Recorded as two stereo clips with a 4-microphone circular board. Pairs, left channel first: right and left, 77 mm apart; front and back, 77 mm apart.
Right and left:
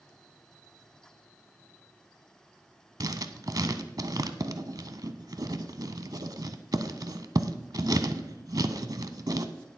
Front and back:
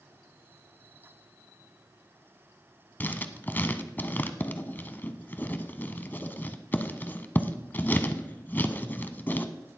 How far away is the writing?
About 0.7 m.